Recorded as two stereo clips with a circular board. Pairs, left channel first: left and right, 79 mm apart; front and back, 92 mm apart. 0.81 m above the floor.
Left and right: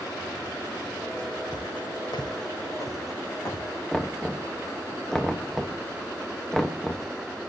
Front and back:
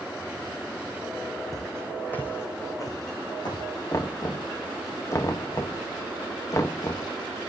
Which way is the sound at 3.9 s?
10° left.